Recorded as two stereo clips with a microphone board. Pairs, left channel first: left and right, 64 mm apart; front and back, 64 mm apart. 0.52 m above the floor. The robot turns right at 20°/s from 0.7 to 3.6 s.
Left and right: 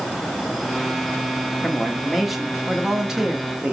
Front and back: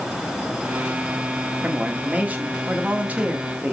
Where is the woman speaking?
170° left, 1.3 m; by 3.7 s 150° right, 1.3 m.